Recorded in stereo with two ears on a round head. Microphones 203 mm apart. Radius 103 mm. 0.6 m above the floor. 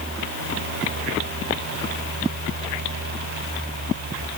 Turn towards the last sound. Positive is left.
No sound to turn to.